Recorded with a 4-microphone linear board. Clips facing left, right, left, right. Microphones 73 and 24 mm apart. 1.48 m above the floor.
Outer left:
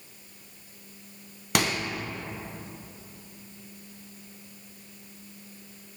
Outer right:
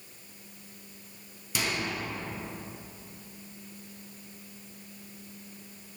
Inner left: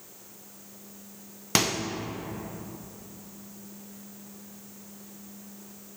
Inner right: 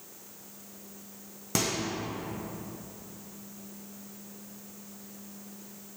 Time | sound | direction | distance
1.6 | a microwave | 65° left (ahead or behind) | 0.6 m